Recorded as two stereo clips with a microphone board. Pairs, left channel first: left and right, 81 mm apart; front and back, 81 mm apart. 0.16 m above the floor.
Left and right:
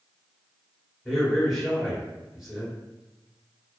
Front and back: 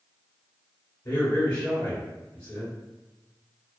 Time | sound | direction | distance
1.1 | a man speaking | 10° right | 1.2 m